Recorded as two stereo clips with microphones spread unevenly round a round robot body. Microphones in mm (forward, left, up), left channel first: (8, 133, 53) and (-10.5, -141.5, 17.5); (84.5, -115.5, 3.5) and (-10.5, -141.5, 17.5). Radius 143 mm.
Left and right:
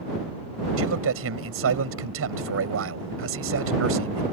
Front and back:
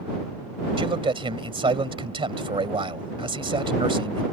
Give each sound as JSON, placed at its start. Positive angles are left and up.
{"t": 0.8, "sound": "a man speaking", "azimuth_deg": -135}